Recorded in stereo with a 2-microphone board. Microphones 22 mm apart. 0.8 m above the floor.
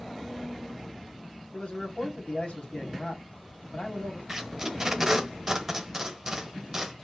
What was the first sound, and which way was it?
A man speaking, 65° left (ahead or behind).